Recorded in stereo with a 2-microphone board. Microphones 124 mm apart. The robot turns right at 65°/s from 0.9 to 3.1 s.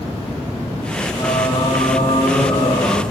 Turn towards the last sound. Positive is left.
turn(degrees=160)